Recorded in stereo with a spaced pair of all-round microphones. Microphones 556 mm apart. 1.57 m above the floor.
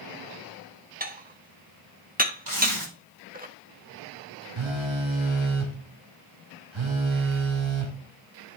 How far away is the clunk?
No clunk in this recording.